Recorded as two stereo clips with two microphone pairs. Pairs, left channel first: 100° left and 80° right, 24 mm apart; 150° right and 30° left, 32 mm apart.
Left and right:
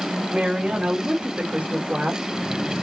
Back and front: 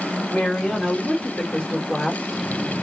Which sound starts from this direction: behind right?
A woman speaking, at 0.3 s.